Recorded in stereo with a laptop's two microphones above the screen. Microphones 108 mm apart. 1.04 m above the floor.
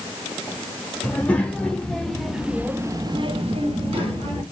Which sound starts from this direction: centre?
A child speaking, at 1.0 s.